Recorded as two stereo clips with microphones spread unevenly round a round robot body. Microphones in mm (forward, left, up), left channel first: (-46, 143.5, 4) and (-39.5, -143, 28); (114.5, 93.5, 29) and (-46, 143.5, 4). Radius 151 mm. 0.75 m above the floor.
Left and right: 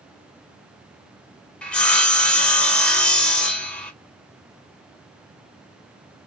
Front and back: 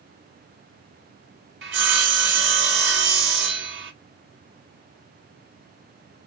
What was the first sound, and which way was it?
Sawing, 175° left.